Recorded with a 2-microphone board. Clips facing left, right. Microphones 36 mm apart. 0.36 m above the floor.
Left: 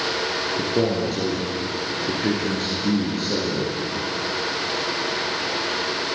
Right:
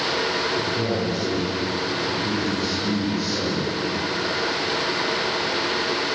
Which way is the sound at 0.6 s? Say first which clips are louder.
Left 2 dB; 65° left (ahead or behind).